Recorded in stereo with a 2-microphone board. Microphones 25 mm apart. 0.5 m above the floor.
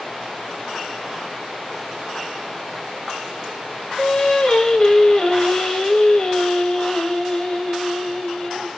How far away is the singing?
About 0.6 m.